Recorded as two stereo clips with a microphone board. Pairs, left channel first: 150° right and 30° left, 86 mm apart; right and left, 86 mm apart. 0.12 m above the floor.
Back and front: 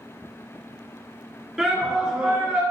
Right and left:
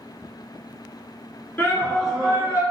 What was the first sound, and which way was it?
A shout, 55° right.